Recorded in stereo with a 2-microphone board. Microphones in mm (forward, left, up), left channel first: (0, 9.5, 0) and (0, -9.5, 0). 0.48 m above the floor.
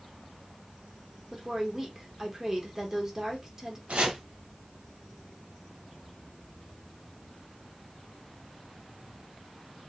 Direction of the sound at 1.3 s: 30° right (ahead or behind).